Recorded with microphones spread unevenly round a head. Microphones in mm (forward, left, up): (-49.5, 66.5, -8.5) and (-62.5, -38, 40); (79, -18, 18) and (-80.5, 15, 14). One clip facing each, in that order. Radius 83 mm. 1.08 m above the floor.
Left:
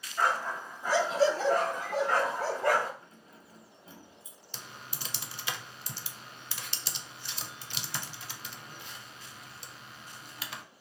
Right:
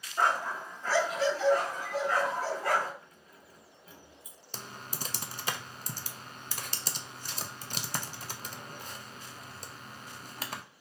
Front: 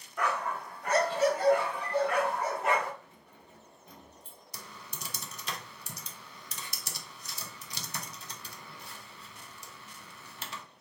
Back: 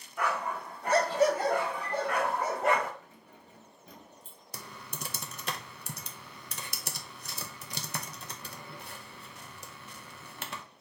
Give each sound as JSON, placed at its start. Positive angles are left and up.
{"t": 0.2, "sound": "a dog barking", "azimuth_deg": -105, "distance_m": 0.8}
{"t": 3.0, "sound": "keys jangling", "azimuth_deg": 145, "distance_m": 1.2}
{"t": 4.5, "sound": "typing on a keyboard", "azimuth_deg": -150, "distance_m": 0.5}